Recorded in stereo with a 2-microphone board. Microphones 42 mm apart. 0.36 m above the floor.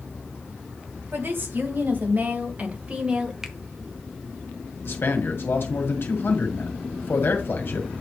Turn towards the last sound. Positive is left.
turn(degrees=60)  # may be behind; listen again after turning